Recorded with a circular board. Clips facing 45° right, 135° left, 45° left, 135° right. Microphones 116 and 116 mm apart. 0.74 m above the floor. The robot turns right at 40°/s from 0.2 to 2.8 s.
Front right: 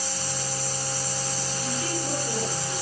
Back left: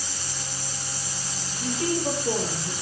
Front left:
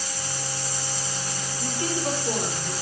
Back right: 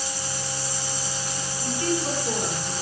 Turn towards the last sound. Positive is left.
turn(degrees=155)